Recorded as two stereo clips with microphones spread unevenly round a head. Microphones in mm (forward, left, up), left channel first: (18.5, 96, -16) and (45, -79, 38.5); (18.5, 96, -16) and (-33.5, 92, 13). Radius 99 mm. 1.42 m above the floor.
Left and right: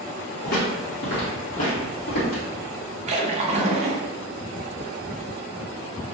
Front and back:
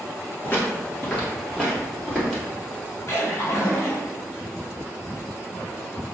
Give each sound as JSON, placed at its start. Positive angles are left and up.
{"t": 0.4, "sound": "footsteps", "azimuth_deg": 80, "distance_m": 1.6}
{"t": 3.1, "sound": "a splash", "azimuth_deg": -20, "distance_m": 0.6}